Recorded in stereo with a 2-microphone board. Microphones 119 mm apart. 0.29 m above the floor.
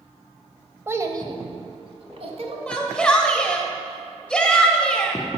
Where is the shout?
10° left (ahead or behind), 0.9 m.